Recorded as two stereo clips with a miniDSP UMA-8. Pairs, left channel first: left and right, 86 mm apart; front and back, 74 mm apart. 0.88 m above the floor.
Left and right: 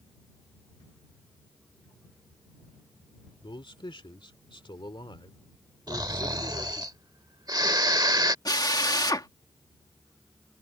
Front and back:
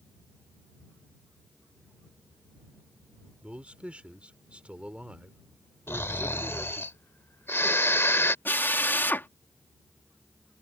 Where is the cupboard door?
No cupboard door in this recording.